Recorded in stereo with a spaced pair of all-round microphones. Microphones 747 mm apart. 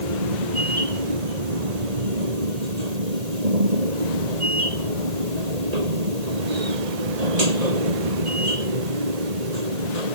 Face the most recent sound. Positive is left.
turn(degrees=-55)  # may be behind; listen again after turning